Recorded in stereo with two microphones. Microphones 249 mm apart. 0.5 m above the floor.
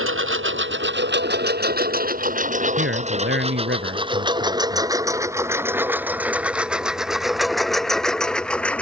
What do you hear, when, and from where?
0.0 s a lawn mower: 55° right (ahead or behind); by 8.8 s 5° left (ahead or behind)
2.8 s a man speaking: 45° right (ahead or behind)